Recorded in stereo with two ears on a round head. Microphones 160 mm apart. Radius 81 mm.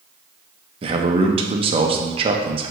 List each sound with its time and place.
0.8 s a man speaking: 30° right (ahead or behind), 0.6 m